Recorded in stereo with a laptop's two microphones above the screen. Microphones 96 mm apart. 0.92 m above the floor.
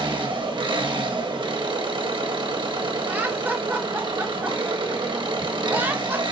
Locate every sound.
0.0 s an engine running: 55° right (ahead or behind), 1.0 m
3.1 s laughter: 20° right (ahead or behind), 0.6 m